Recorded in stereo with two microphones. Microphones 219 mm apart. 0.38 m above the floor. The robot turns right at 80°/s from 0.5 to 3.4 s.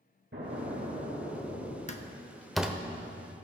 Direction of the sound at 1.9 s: 35° left (ahead or behind).